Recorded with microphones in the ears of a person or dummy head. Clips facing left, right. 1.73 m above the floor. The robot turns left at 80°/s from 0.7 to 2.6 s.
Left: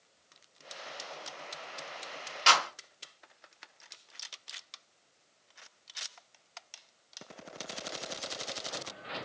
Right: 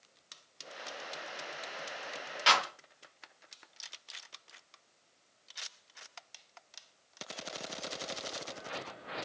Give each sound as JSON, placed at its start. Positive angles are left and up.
{"t": 2.5, "sound": "a clap", "side_deg": 0, "distance_m": 1.6}